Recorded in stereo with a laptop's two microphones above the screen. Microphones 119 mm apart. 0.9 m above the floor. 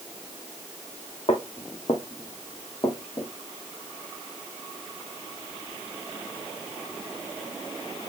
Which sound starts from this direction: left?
Footsteps, at 1.3 s.